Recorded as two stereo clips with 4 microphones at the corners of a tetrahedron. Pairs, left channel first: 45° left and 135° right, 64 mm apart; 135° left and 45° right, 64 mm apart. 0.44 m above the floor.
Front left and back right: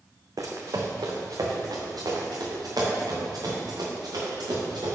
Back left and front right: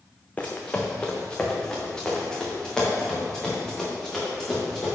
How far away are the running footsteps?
About 1.3 m.